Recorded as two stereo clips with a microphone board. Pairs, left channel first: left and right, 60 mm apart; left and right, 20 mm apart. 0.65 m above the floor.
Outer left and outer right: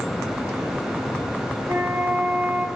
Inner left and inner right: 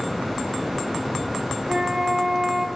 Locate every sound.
1.7 s a flute: 60° right (ahead or behind), 1.1 m